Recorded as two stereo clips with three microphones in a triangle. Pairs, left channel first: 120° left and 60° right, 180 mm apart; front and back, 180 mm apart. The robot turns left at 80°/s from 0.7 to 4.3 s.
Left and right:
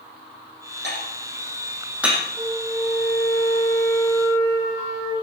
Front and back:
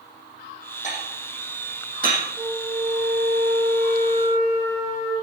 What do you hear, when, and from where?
0.8 s dishes clattering: 45° right, 5.5 m; by 2.2 s 155° right, 5.5 m
2.4 s a flute: 155° right, 8.5 m; by 5.1 s 50° left, 8.5 m